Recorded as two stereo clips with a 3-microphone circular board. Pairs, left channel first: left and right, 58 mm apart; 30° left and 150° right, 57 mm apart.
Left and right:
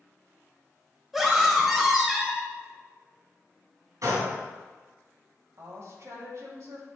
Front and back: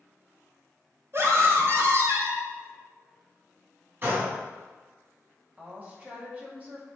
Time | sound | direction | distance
1.1 | a scream | 175° right | 1.9 m
4.0 | a gunshot | 100° right | 2 m
5.6 | a woman speaking | 95° right | 1.9 m